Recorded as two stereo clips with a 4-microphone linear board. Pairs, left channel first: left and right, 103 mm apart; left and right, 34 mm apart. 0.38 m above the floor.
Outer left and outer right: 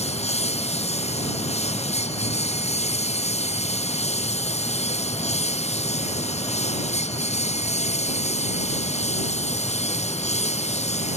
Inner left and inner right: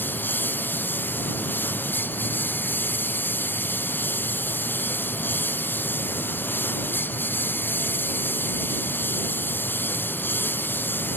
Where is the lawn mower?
75° left (ahead or behind); by 11.2 s 85° left.